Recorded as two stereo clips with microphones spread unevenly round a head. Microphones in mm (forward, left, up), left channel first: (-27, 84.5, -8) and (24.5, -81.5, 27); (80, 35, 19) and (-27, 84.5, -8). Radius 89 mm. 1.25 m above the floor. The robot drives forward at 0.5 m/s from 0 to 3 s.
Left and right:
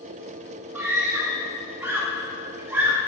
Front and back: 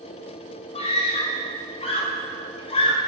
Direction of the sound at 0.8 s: 5° left.